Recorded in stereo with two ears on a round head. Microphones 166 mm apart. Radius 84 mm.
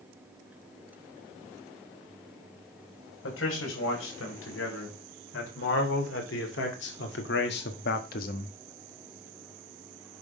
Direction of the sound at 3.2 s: 75° left (ahead or behind).